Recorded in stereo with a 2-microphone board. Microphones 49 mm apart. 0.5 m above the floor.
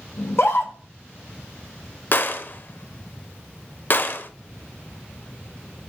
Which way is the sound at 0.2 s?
60° left (ahead or behind).